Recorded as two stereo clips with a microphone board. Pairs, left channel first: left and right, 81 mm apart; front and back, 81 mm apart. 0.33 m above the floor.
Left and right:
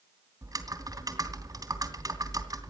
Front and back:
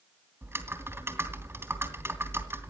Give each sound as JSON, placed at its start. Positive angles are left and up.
{"t": 0.4, "sound": "typing on a keyboard", "azimuth_deg": -125, "distance_m": 2.5}